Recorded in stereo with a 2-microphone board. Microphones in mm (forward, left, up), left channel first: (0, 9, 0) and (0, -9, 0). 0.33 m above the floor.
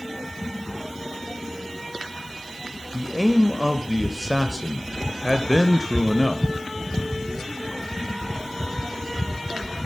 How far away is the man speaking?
About 1.0 m.